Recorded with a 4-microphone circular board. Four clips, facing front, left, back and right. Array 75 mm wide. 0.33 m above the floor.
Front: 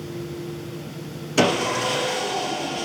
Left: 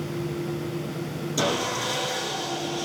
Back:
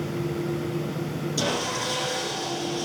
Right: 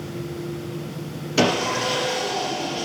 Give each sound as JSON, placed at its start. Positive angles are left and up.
{"t": 1.4, "sound": "sawing", "azimuth_deg": -30, "distance_m": 3.0}